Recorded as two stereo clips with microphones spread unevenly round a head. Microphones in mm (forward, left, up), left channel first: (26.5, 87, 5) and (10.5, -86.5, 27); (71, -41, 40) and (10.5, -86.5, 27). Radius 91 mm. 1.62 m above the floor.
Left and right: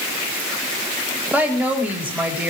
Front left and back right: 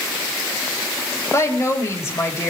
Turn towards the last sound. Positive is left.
turn(degrees=-15)